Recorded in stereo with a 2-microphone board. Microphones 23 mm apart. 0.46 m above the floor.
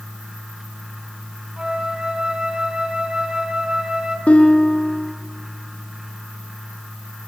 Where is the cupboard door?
I don't hear a cupboard door.